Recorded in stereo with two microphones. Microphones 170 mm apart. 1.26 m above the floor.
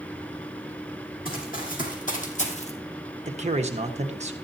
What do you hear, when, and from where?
1.2 s running footsteps: 50° left (ahead or behind), 3.5 m; by 2.7 s 35° left (ahead or behind), 1.9 m
3.2 s a man speaking: 40° right (ahead or behind), 1.3 m